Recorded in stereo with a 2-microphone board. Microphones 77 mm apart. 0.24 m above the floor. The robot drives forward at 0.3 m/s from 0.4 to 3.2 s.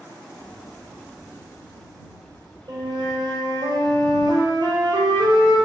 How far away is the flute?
About 1.3 m.